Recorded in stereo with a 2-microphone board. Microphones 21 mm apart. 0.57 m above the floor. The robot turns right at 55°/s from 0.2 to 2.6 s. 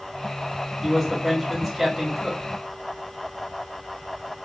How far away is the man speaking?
About 1.3 m.